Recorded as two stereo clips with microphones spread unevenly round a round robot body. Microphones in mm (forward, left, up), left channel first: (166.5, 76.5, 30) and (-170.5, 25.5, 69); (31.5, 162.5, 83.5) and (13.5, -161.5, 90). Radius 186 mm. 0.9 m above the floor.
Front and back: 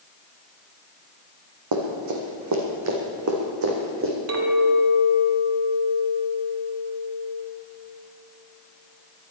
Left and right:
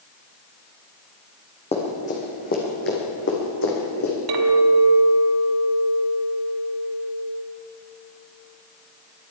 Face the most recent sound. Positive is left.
turn(degrees=-120)